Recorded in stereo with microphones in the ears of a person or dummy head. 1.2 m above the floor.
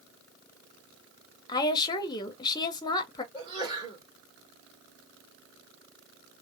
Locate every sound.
1.5 s a woman speaking: 25° left (ahead or behind), 0.7 m
3.3 s a sneeze: 25° right (ahead or behind), 1.8 m